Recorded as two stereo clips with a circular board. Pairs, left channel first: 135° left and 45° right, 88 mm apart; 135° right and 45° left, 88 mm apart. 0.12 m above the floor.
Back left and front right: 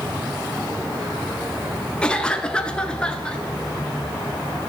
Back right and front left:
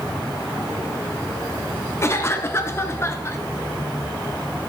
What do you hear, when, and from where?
2.0 s a cough: 155° right, 1.5 m